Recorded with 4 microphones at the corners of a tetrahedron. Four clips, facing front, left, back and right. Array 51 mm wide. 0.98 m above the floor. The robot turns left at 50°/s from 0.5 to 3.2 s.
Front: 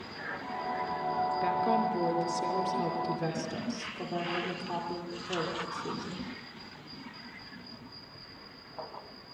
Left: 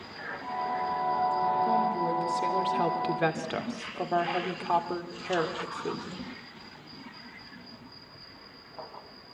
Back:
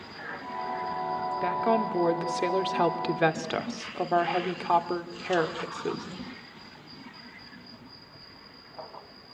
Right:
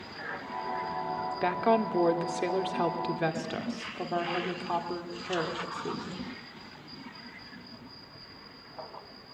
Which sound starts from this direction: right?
A woman speaking, at 1.4 s.